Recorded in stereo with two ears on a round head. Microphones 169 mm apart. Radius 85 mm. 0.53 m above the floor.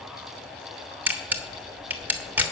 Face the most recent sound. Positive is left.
turn(degrees=-10)  # may be behind; listen again after turning